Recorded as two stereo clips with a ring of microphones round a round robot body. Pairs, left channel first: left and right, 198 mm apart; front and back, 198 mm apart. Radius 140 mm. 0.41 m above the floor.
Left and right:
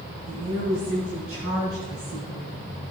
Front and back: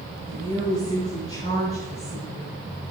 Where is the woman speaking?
105° right, 5.5 m; by 2.5 s 120° right, 4 m.